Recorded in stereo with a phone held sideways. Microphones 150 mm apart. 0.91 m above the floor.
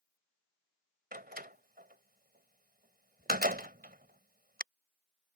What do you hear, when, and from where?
1.1 s a door slam: 75° right (ahead or behind)